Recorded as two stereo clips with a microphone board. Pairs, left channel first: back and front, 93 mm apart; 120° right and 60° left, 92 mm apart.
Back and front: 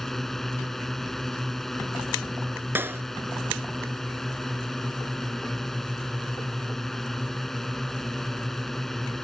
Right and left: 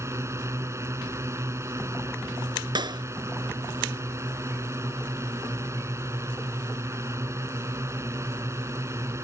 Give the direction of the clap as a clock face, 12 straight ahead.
10 o'clock.